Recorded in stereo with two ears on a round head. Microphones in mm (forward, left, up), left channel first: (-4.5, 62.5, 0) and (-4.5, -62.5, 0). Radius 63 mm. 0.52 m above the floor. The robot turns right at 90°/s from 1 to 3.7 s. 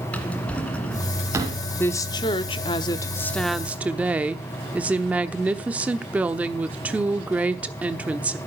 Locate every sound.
0.1 s a drawer: 10° left (ahead or behind), 1.9 m; by 1.6 s 45° right (ahead or behind), 1.9 m
1.8 s a woman speaking: 25° left, 0.9 m; by 8.4 s 165° right, 0.9 m